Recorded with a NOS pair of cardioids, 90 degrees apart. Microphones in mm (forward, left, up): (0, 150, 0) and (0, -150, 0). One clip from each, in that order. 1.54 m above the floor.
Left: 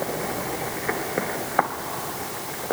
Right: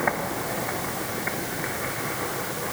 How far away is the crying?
No crying in this recording.